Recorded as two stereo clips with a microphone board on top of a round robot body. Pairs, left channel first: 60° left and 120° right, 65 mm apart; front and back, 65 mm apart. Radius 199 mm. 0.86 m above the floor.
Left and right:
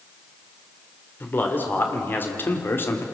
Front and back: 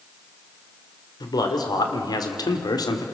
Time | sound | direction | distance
1.2 | a man speaking | straight ahead | 3.5 m